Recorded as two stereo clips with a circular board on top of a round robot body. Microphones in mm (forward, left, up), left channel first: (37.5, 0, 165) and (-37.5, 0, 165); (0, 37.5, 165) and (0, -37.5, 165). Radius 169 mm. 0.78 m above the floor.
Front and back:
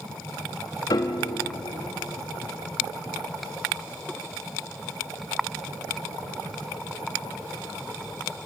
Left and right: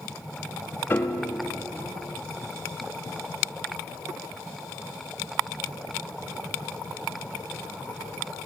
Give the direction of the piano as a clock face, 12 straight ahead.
11 o'clock.